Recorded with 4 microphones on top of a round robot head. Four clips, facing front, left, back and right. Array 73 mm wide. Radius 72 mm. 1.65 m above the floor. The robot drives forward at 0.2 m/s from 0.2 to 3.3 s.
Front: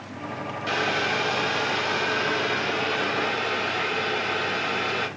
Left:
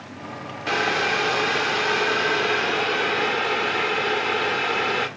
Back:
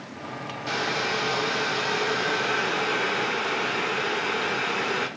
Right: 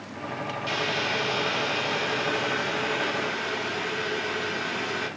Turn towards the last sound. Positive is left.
turn(degrees=120)